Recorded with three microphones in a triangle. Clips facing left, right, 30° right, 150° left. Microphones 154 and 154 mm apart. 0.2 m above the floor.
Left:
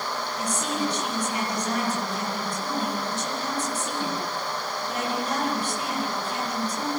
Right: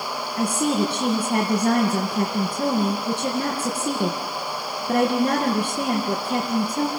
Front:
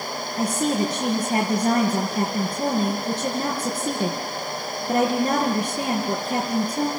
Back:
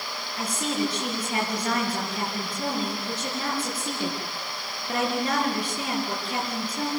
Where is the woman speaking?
85° right, 4.5 m.